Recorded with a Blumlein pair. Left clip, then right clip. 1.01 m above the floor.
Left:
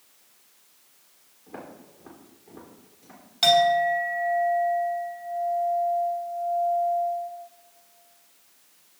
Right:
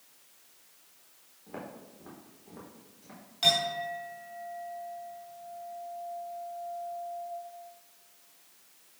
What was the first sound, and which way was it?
Footsteps, 5° right.